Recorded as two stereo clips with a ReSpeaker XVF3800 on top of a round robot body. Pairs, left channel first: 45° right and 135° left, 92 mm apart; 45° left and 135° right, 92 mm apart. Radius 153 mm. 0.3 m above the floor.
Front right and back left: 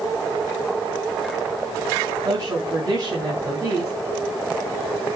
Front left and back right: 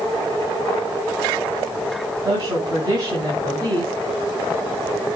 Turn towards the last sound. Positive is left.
turn(degrees=-175)